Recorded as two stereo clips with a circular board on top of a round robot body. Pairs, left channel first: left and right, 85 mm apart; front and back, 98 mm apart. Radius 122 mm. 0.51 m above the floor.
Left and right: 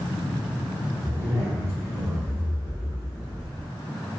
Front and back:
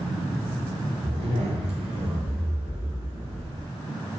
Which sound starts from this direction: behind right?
A zipper, at 1.0 s.